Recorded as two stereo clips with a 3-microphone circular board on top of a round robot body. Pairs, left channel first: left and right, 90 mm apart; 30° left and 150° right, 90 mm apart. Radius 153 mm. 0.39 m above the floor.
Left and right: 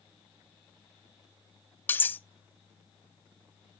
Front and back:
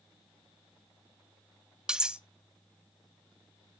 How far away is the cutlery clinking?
About 0.7 m.